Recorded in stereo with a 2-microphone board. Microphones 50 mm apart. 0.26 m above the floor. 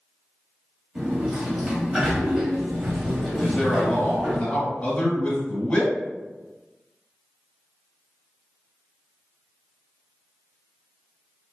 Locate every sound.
0.9 s a sliding door: 15° right (ahead or behind), 0.7 m
3.4 s a man speaking: 30° left (ahead or behind), 1.1 m